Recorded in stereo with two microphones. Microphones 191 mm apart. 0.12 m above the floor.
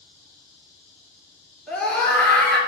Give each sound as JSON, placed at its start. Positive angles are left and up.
{"t": 1.7, "sound": "a scream", "side_deg": 5, "distance_m": 2.0}